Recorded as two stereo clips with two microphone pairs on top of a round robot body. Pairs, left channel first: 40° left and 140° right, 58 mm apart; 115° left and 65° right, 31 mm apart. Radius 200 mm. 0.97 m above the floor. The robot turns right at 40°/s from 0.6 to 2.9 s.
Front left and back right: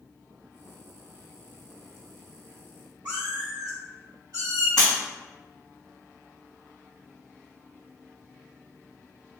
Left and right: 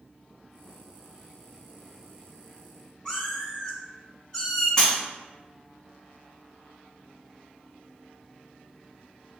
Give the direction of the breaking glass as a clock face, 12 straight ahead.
11 o'clock.